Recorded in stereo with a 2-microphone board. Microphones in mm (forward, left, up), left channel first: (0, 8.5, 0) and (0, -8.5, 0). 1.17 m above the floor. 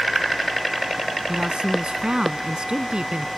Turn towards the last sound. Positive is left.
turn(degrees=-60)  # may be behind; listen again after turning